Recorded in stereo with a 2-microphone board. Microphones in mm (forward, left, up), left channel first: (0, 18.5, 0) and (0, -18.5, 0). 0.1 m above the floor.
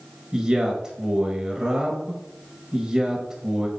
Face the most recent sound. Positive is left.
turn(degrees=-20)  # may be behind; listen again after turning